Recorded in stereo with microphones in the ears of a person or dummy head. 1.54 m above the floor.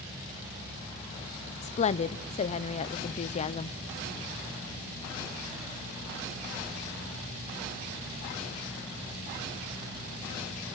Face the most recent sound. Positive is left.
turn(degrees=35)  # may be behind; listen again after turning